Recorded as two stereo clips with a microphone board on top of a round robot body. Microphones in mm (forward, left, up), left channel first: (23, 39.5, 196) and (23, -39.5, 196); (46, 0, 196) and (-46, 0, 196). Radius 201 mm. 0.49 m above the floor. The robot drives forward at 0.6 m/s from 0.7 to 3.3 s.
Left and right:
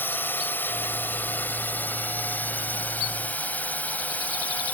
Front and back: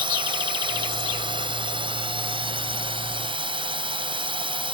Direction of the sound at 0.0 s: 155° left.